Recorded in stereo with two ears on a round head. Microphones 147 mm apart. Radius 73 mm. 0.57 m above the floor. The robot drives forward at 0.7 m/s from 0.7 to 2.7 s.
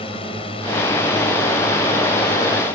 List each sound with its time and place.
0.0 s a drone: 35° left (ahead or behind)